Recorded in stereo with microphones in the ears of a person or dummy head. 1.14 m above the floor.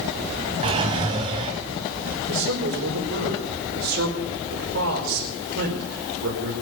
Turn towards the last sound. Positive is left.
turn(degrees=-75)  # may be behind; listen again after turning